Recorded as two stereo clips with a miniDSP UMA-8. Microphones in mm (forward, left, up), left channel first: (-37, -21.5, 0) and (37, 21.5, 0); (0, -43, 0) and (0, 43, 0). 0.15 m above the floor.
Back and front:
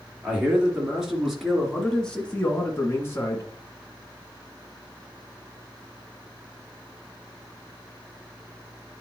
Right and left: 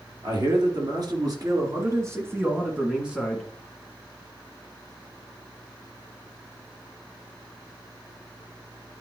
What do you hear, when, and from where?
0.2 s a man speaking: 105° left, 3 m; by 3.5 s straight behind, 2.0 m